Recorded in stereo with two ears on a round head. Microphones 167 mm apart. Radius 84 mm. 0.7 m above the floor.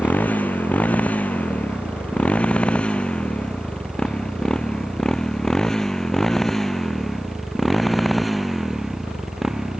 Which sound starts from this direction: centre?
A motorcycle, at 0.0 s.